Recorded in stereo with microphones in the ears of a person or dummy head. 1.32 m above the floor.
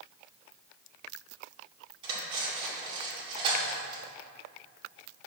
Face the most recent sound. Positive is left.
turn(degrees=-30)  # may be behind; listen again after turning